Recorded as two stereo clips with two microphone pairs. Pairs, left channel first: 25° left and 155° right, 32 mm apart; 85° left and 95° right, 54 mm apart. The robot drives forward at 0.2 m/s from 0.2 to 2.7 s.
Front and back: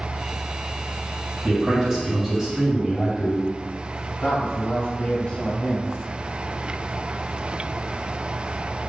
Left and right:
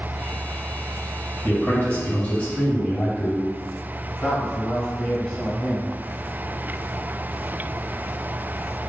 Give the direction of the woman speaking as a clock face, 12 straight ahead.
11 o'clock.